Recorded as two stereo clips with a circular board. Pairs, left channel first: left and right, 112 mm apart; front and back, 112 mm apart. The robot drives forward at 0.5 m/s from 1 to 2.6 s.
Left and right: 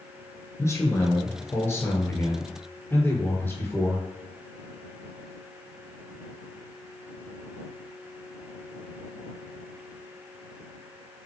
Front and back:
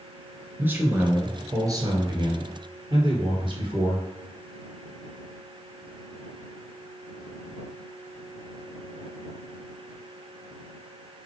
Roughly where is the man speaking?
Behind left.